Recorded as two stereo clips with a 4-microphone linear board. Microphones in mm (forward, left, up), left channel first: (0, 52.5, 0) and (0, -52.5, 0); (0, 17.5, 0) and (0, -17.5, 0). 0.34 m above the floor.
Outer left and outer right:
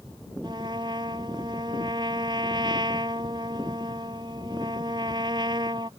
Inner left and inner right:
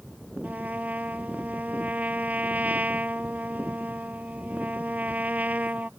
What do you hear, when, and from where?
0.4 s a trumpet: 45° right (ahead or behind)